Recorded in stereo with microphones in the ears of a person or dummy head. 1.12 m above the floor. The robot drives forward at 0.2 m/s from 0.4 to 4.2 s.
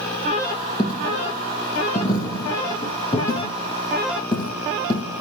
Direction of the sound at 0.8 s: 30° left (ahead or behind).